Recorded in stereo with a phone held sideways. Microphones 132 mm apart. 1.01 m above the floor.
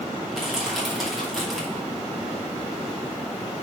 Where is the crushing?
Centre (ahead or behind), 2.5 m.